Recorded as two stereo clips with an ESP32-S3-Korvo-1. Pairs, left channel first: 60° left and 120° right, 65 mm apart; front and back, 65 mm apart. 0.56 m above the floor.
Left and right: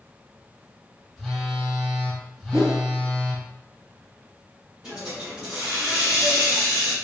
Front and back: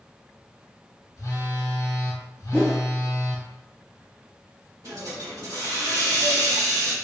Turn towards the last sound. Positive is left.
turn(degrees=165)